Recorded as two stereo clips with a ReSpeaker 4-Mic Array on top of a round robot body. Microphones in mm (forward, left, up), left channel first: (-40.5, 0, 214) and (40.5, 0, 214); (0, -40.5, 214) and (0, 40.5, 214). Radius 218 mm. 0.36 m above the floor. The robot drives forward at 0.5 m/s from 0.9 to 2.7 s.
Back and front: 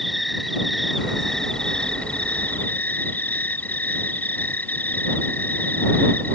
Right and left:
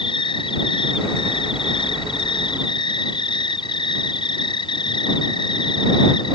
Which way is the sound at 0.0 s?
90° right.